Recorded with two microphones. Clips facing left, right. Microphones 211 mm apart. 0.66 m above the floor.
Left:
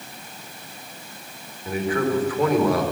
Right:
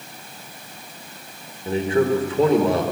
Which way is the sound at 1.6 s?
25° right (ahead or behind).